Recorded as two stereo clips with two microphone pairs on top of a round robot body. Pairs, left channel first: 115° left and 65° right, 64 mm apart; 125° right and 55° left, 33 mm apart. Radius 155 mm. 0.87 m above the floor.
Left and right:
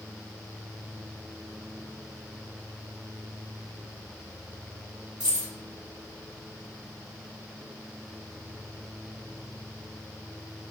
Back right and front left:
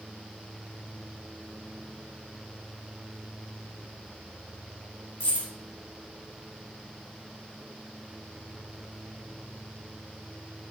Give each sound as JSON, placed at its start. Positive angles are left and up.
{"t": 5.2, "sound": "keys jangling", "azimuth_deg": -140, "distance_m": 1.8}